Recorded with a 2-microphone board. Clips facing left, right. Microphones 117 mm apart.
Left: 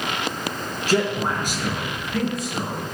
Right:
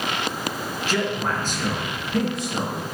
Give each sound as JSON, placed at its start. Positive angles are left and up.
{"t": 0.9, "sound": "a man speaking", "side_deg": 40, "distance_m": 1.8}